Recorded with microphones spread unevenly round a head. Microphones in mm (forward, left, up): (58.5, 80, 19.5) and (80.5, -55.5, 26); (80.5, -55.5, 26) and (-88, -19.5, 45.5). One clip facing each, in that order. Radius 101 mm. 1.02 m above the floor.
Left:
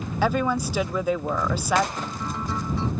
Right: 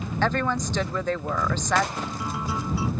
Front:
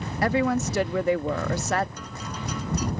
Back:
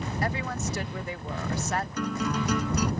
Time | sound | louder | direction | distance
0.2 | a woman speaking | left 2 dB, front 11 dB | 20° left | ?
2.0 | a guitar | even, back 8 dB | 165° right | ?